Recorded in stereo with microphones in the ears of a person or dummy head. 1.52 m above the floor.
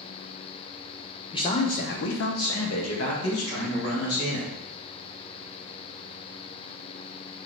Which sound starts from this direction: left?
A man speaking, at 1.3 s.